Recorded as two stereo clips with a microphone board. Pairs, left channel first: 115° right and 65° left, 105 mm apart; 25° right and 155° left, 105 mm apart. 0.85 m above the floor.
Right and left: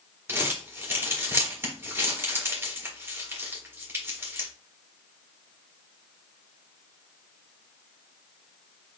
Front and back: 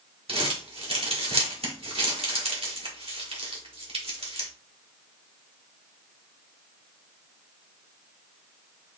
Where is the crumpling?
135° left, 1.6 m.